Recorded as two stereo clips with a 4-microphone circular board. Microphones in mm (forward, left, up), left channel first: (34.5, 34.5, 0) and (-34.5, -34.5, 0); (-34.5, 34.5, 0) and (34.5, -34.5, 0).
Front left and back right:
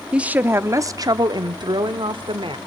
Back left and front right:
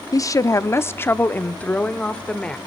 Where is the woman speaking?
150° left, 0.7 m; by 2.6 s 145° right, 1.5 m.